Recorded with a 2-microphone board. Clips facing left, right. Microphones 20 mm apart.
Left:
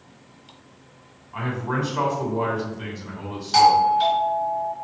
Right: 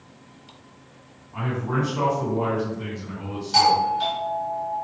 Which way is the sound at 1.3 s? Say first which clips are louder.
Even; 30° left (ahead or behind).